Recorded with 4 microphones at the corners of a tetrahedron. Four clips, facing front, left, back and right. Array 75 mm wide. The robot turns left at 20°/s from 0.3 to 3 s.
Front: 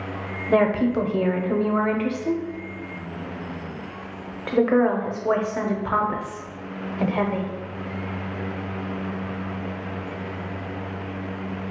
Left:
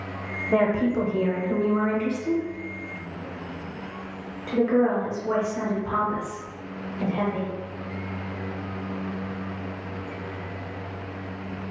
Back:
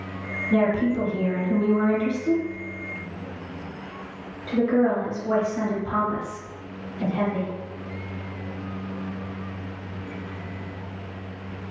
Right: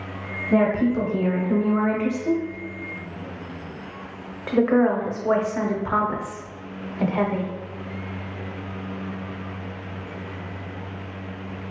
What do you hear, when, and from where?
0.5 s a woman speaking: 10° left, 0.6 m; by 7.5 s 40° right, 0.6 m